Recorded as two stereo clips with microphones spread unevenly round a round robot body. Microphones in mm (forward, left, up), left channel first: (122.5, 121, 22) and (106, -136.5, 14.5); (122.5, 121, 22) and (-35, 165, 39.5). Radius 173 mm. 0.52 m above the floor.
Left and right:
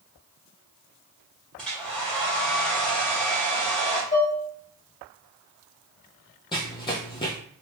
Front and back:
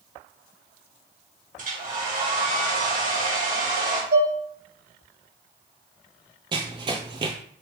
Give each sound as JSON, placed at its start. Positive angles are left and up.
{"t": 1.6, "sound": "a hair dryer", "azimuth_deg": 175, "distance_m": 1.4}
{"t": 4.1, "sound": "dishes clattering", "azimuth_deg": 160, "distance_m": 1.5}
{"t": 6.5, "sound": "running footsteps", "azimuth_deg": 145, "distance_m": 0.6}